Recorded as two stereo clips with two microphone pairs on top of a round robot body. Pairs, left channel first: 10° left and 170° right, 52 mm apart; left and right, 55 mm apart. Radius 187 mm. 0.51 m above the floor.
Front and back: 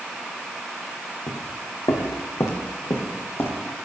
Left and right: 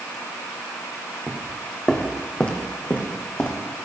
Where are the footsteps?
5° right, 1.4 m; by 3.9 s 40° left, 2 m.